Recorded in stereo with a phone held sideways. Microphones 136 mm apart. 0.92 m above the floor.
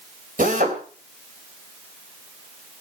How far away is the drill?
About 3.5 m.